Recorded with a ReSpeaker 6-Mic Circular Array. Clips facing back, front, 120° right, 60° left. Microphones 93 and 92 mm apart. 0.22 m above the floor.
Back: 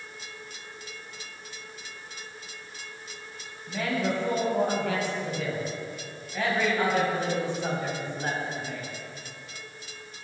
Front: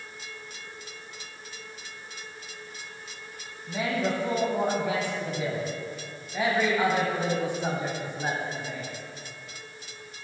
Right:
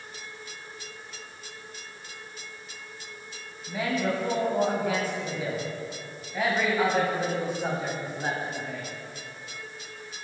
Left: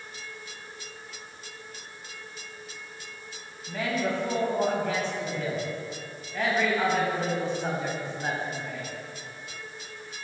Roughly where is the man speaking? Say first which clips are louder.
Even, right 1 dB; ahead right.